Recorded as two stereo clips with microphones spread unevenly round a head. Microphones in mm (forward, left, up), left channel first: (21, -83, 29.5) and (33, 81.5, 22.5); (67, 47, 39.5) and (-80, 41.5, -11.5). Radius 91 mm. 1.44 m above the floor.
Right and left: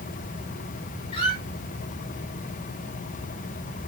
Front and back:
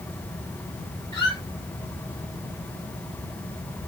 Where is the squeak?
50° right, 2 m.